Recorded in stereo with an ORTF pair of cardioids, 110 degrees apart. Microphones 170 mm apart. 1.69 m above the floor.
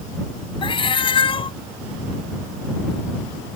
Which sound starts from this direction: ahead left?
A cat meowing, at 0.6 s.